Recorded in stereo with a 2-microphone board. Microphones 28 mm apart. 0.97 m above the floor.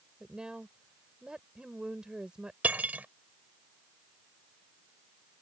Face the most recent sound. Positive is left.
turn(degrees=-70)  # may be behind; listen again after turning